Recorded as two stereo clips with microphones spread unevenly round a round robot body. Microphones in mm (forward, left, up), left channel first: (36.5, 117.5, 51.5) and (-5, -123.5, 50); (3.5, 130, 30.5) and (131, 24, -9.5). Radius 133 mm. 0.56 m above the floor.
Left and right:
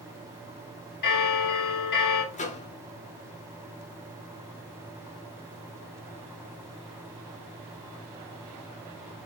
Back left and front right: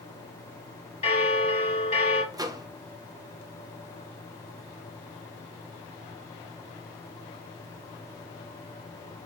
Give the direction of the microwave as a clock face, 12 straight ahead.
11 o'clock.